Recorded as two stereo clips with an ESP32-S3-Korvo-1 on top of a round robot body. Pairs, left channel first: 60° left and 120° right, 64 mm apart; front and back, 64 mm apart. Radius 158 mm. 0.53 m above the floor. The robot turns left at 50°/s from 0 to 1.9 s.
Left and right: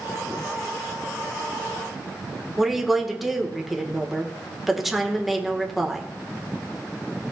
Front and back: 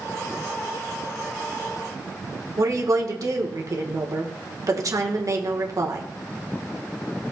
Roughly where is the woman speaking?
Behind left.